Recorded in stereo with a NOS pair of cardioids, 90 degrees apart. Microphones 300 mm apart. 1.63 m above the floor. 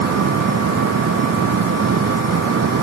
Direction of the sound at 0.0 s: 50° right.